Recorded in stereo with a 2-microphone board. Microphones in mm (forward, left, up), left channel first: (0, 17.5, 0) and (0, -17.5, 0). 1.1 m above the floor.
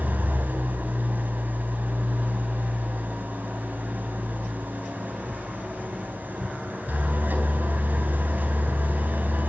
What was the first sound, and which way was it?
An engine running, 70° right (ahead or behind).